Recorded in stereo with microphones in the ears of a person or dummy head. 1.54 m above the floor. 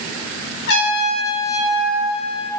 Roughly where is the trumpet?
Left.